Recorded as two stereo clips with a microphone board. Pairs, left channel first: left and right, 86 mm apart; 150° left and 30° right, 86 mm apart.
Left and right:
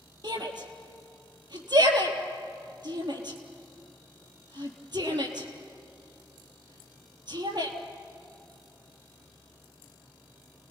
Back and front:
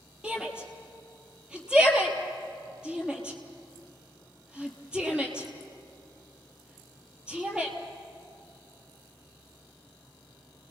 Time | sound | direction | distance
0.2 | a shout | 110° right | 3.5 m